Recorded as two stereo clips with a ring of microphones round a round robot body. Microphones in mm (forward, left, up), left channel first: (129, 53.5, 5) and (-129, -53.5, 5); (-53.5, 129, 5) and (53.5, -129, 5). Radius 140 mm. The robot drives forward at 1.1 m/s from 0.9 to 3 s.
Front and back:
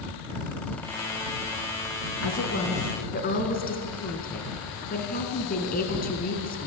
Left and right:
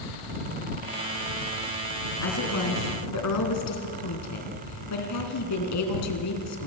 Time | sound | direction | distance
2.2 | a woman speaking | 65° left | 3.5 m